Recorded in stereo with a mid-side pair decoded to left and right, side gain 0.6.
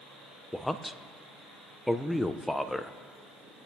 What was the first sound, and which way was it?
A man speaking, 5° left.